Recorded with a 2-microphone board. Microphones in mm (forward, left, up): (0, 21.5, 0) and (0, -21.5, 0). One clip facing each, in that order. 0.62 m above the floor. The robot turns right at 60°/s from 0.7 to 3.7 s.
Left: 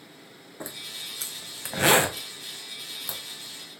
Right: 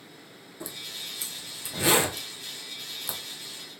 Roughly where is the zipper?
Left.